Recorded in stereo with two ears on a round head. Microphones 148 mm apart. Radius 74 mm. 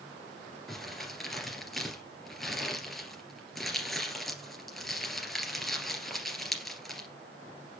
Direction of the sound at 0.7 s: Centre (ahead or behind).